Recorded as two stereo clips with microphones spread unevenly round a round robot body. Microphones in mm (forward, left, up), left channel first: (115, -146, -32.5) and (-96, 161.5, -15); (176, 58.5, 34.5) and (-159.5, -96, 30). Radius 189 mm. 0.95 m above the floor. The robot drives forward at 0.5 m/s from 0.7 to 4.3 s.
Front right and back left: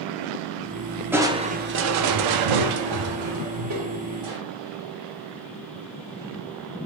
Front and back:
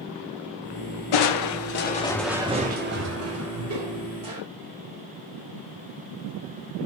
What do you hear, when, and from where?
1.1 s crushing: 40° left, 0.6 m; by 4.4 s 165° left, 1.3 m